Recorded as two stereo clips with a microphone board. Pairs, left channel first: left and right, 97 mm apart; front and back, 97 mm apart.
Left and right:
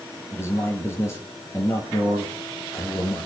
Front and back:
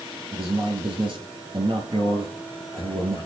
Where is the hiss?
No hiss in this recording.